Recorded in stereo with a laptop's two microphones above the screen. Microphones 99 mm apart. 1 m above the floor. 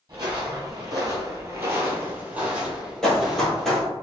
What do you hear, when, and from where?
0.1 s footsteps: 35° right (ahead or behind), 1.4 m; by 3.8 s centre (ahead or behind), 2.5 m
3.0 s running footsteps: 5° left (ahead or behind), 1.5 m